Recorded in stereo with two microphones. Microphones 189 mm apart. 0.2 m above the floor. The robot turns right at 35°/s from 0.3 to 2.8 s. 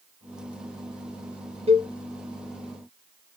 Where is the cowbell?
30° right (ahead or behind), 0.5 m.